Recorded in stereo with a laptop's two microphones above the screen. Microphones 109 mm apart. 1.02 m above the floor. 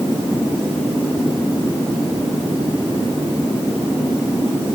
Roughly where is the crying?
No crying in this recording.